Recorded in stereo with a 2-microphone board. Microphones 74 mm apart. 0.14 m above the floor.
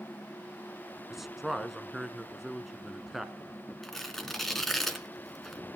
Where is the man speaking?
5° right (ahead or behind), 1.3 m.